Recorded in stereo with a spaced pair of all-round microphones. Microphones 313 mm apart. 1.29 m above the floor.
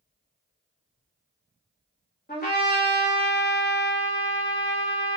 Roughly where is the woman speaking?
No woman speaking in this recording.